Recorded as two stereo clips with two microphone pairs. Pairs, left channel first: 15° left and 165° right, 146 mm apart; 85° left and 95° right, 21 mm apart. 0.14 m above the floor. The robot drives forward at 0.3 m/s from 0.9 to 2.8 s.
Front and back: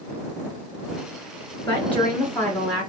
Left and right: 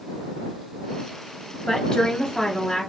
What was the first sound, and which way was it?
A woman speaking, 75° left.